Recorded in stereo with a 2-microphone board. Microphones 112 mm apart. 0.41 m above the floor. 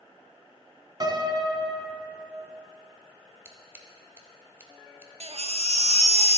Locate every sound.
1.0 s a piano: 40° right (ahead or behind), 1.4 m
3.5 s scissors: 20° right (ahead or behind), 1.1 m
5.2 s a baby crying: 70° right (ahead or behind), 0.5 m